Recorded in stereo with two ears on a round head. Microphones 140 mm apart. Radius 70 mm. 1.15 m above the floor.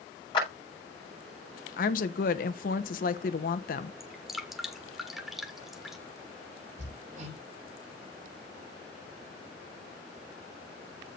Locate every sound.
0.3 s a clap: 30° left (ahead or behind), 6.5 m
1.8 s a woman speaking: 55° left (ahead or behind), 1.0 m
4.0 s dripping: centre (ahead or behind), 1.5 m
6.8 s hammering: 50° right (ahead or behind), 5.5 m